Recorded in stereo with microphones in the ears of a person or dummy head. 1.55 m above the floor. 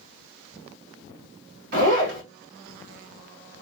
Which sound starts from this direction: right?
A zipper, at 1.7 s.